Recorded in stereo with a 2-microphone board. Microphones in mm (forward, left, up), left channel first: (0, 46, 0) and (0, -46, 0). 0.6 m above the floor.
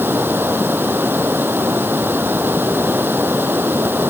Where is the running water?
20° right (ahead or behind).